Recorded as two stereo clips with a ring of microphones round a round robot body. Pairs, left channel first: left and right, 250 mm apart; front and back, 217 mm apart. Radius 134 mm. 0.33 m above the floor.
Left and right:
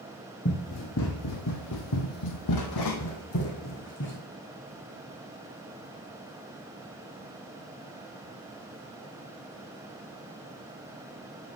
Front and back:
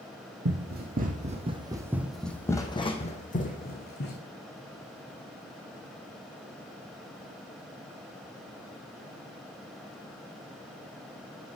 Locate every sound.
0.5 s running footsteps: 140° left, 1.6 m; by 4.2 s 40° left, 1.9 m